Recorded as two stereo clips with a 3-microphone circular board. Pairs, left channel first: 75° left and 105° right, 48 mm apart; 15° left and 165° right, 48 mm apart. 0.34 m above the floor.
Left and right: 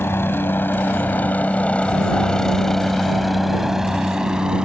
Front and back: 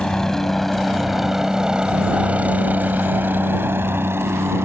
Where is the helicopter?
90° left; by 4.7 s 175° right.